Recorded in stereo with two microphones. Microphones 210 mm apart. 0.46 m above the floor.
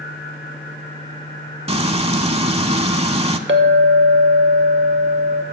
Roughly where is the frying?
Right.